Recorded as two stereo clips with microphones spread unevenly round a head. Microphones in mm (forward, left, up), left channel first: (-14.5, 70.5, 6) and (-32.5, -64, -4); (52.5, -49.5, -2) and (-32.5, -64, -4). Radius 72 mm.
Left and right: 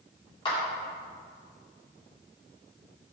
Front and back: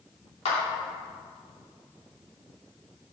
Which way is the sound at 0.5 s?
20° left.